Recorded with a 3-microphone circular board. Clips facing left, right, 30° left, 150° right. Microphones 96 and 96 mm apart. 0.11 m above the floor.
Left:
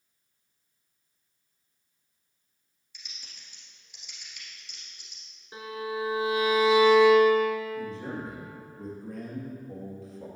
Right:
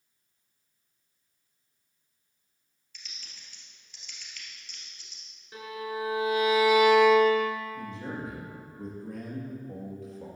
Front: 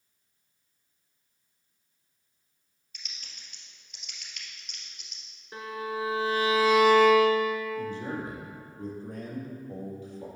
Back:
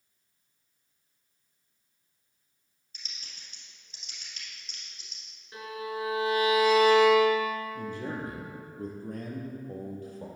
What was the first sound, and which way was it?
Typing on a keyboard, 160° left.